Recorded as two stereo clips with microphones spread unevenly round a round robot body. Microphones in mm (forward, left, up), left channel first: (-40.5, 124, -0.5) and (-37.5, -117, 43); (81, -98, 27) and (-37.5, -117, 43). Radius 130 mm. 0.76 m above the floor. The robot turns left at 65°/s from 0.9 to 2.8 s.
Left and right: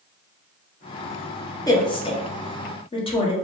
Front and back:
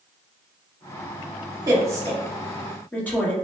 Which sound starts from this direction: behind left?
A woman speaking, at 1.7 s.